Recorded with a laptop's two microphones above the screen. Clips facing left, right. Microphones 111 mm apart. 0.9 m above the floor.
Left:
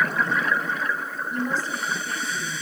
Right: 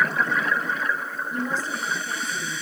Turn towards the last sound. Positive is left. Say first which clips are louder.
# left 1 dB
turn(degrees=5)  # may be behind; listen again after turning